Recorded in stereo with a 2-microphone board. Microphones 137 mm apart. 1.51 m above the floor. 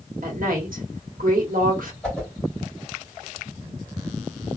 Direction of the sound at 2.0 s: 5° left (ahead or behind).